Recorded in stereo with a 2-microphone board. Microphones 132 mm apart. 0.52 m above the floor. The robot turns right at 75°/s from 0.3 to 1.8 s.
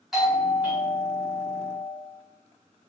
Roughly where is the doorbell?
Centre.